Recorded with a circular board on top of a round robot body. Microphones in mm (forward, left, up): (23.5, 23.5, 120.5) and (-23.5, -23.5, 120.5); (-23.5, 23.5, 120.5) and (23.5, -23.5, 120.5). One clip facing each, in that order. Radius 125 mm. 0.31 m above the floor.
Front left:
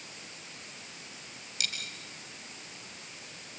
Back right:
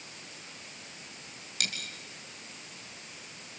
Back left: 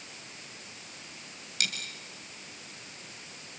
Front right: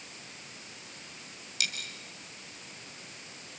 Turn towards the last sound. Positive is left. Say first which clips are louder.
# back right 2 dB, back left 1 dB
turn(degrees=-175)